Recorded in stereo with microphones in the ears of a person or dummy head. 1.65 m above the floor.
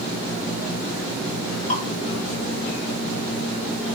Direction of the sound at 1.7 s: 35° left (ahead or behind).